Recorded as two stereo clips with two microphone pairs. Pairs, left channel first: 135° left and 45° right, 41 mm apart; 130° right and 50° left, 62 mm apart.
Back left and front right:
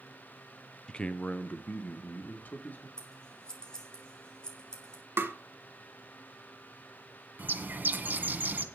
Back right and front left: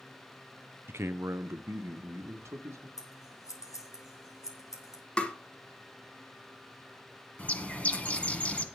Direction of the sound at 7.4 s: 65° right.